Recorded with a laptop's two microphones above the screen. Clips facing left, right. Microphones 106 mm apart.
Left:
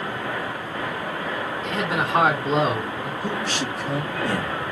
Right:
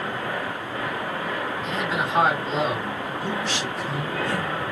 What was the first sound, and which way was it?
A man speaking, 70° left (ahead or behind).